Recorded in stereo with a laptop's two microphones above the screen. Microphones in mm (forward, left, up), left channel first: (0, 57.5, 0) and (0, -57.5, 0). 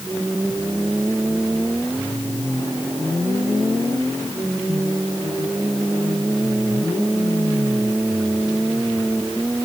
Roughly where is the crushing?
I don't hear crushing.